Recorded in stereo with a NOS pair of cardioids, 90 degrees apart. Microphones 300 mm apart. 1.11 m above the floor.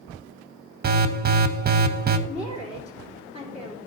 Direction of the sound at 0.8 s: 30° right.